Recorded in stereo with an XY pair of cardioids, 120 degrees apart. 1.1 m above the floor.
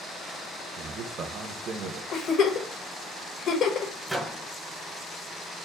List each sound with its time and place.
0.8 s a man speaking: 60° right, 0.8 m
2.1 s a giggle: 60° left, 1.1 m
4.1 s a microwave: 5° right, 0.7 m